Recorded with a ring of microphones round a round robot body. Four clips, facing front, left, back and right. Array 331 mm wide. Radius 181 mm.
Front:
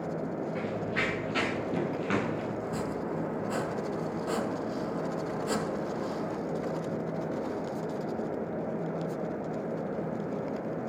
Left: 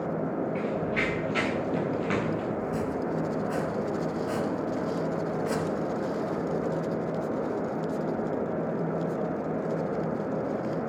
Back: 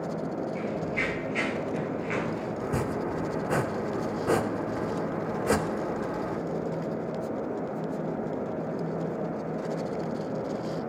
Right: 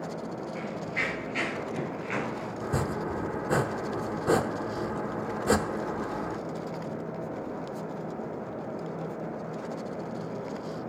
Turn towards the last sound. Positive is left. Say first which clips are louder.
# left 1 dB, back 4 dB
turn(degrees=-125)